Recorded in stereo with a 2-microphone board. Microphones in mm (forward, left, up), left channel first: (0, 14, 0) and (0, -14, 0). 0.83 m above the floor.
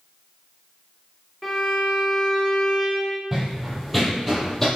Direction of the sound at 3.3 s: 15° right (ahead or behind).